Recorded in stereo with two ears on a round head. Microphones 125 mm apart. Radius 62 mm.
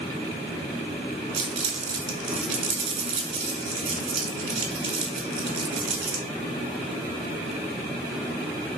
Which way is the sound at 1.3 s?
45° right (ahead or behind).